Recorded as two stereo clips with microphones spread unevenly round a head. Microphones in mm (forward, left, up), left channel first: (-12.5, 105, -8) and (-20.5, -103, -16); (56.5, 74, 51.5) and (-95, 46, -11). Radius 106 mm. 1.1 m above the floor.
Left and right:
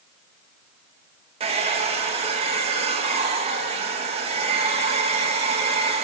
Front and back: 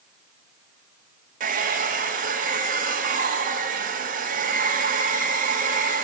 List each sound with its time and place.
1.4 s a hair dryer: 155° right, 1.4 m